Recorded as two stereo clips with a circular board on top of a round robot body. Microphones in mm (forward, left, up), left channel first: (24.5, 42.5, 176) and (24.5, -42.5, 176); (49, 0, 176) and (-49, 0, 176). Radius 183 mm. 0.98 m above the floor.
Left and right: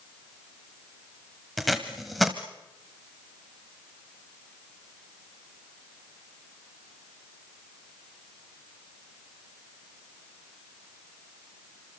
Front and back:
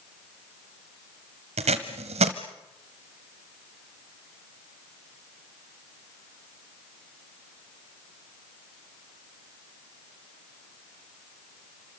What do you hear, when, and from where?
1.6 s tape being pulled: straight behind, 1.1 m